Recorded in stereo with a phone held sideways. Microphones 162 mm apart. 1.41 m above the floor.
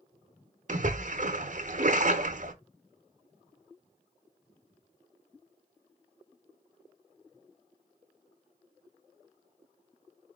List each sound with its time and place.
0.7 s a splash: 50° right (ahead or behind), 0.8 m